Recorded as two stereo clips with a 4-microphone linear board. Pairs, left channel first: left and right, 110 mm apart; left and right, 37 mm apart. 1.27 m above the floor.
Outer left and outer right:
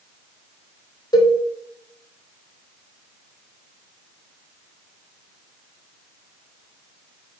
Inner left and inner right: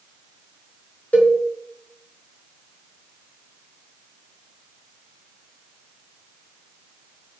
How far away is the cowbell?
About 0.8 m.